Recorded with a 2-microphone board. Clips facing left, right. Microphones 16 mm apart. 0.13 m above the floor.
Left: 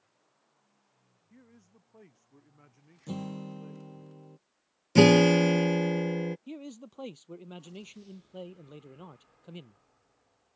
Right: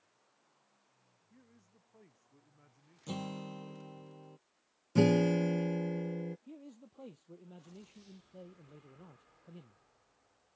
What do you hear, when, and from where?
1.3 s a man speaking: 25° left (ahead or behind)
3.1 s a guitar: 10° right (ahead or behind)
5.0 s a guitar: 65° left (ahead or behind)
6.5 s a man speaking: 70° left (ahead or behind)